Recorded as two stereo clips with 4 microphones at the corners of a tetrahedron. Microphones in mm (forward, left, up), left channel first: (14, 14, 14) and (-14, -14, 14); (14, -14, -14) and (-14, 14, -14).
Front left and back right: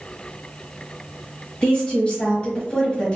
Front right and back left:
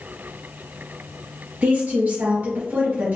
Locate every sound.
1.6 s a woman speaking: 100° left, 1.4 m